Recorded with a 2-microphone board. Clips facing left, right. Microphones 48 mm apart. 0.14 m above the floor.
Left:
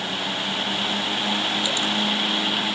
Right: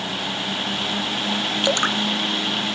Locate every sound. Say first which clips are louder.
1.6 s dripping: right 4 dB; 65° right (ahead or behind)